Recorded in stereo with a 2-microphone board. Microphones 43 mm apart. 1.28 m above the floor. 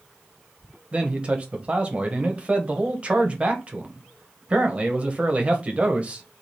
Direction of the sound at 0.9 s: 30° right (ahead or behind).